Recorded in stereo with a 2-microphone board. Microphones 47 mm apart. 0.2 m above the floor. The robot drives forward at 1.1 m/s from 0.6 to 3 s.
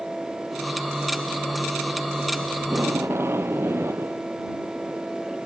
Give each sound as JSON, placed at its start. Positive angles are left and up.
{"t": 2.6, "sound": "tape being pulled", "side_deg": -60}